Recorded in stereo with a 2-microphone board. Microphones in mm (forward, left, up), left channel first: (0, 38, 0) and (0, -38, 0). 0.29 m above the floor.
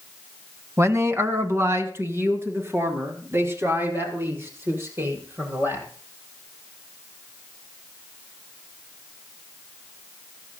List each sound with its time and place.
0.8 s a man speaking: 35° right (ahead or behind), 1.6 m; by 5.8 s 30° right (ahead or behind), 9 m